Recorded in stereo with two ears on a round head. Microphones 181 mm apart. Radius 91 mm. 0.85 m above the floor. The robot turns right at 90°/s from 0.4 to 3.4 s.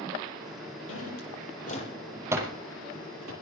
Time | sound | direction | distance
0.9 | a drawer | 65° left (ahead or behind) | 7 m